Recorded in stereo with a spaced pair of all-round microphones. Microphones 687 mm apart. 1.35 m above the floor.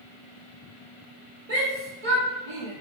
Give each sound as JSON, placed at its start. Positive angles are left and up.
{"t": 1.5, "sound": "a shout", "side_deg": -65, "distance_m": 1.9}